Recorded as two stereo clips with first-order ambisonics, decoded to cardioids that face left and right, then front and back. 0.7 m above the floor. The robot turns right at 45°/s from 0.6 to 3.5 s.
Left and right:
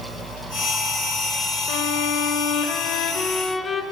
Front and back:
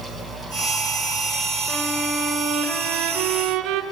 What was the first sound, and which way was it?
A violin, 80° left.